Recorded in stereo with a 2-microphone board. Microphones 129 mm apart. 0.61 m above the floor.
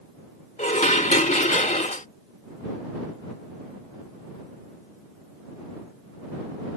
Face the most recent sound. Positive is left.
turn(degrees=70)  # may be behind; listen again after turning